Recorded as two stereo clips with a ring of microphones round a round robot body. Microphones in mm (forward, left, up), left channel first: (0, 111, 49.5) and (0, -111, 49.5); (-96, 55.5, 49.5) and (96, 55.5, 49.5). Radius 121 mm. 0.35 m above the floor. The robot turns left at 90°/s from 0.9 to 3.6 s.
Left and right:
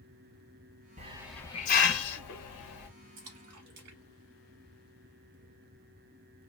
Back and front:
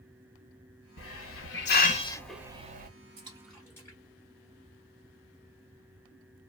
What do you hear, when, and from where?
1.0 s a hiss: 150° right, 0.8 m; by 2.9 s 40° left, 0.8 m
3.2 s a splash: 60° right, 1.0 m; by 5.3 s 100° right, 1.0 m